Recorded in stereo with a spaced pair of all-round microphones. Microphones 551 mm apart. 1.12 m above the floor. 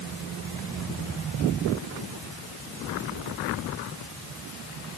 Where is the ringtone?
No ringtone in this recording.